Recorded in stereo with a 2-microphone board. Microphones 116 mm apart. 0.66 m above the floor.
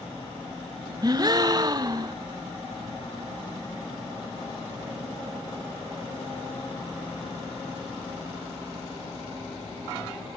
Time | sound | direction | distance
1.0 | a gasp | 35° right (ahead or behind) | 0.7 m